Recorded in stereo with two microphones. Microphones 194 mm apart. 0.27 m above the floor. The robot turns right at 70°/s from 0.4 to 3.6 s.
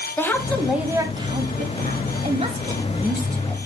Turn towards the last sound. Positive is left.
turn(degrees=25)